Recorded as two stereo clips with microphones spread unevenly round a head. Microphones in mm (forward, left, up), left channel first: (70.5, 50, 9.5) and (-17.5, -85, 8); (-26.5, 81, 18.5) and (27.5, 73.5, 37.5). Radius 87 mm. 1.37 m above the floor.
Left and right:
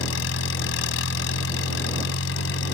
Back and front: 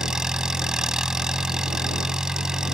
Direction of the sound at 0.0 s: 65° left.